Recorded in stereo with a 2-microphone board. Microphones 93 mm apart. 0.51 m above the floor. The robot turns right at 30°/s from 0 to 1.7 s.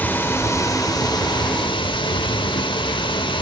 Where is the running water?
20° left, 0.9 m; by 3.4 s 70° left, 0.9 m.